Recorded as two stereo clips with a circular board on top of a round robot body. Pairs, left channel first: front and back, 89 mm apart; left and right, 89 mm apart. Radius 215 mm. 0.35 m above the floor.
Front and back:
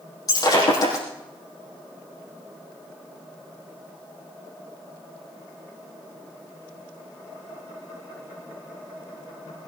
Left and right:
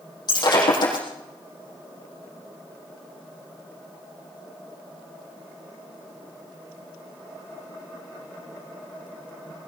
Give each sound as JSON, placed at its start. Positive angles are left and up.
{"t": 0.3, "sound": "breaking glass", "azimuth_deg": 45, "distance_m": 5.5}